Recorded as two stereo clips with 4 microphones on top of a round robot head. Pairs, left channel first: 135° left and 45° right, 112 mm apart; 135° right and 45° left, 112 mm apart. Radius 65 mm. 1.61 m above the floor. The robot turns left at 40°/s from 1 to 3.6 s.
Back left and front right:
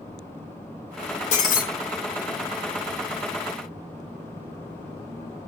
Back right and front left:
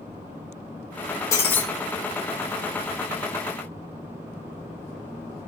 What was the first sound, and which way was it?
Breaking glass, 160° left.